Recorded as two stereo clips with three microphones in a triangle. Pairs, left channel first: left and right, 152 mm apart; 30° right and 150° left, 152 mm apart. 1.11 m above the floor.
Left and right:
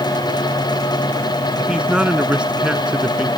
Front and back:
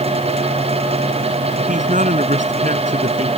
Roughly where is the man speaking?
Behind.